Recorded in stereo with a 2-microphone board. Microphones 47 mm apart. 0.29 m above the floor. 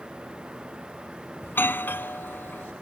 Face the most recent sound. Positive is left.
turn(degrees=50)  # may be behind; listen again after turning